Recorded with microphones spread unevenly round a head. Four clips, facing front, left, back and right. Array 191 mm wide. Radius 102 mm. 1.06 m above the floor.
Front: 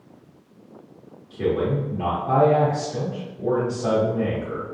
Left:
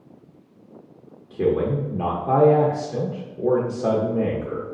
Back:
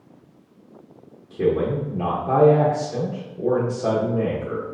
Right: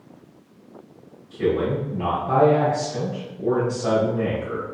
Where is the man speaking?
115° left, 0.8 m.